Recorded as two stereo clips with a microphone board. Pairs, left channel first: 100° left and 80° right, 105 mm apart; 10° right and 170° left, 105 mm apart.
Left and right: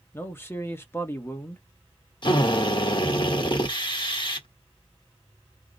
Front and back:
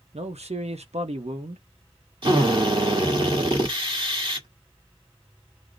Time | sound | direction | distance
0.1 | a man speaking | 165° left | 1.0 m
2.2 | a drill | 135° left | 1.6 m